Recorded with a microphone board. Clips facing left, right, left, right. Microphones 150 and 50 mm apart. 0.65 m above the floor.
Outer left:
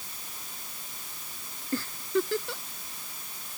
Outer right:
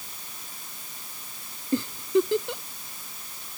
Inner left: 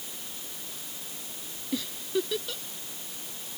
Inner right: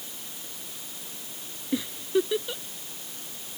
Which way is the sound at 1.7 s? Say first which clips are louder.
Outer right 5 dB, inner right 4 dB; 20° right (ahead or behind).